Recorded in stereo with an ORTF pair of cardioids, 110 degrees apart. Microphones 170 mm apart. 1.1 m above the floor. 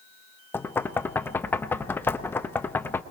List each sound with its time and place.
0.5 s knocking: 15° left, 0.9 m